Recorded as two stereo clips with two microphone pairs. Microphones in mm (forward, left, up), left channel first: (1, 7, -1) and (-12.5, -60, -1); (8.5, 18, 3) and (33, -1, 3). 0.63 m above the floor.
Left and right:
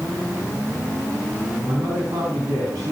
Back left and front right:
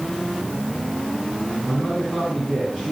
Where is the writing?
I don't hear writing.